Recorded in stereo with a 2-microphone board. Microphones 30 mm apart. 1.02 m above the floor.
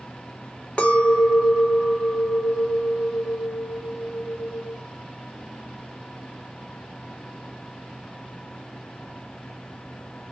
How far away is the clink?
About 0.5 m.